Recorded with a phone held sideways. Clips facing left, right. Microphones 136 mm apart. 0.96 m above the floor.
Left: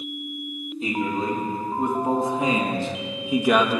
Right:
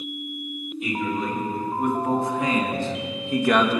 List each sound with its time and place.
0.8 s a man speaking: 30° left (ahead or behind), 3 m; by 3.8 s centre (ahead or behind), 1.2 m